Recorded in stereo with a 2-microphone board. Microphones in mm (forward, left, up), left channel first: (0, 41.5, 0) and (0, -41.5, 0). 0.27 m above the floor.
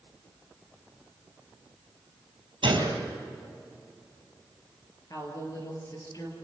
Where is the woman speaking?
45° left (ahead or behind), 5.5 m.